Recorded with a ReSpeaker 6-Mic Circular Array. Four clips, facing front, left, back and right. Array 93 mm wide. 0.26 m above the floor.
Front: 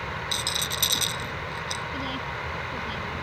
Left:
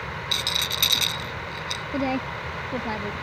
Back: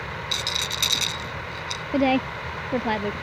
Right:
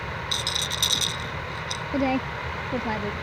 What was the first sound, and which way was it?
A rattle, 125° left.